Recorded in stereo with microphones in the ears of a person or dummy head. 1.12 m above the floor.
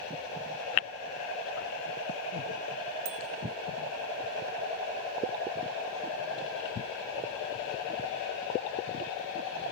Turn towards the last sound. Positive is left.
turn(degrees=-85)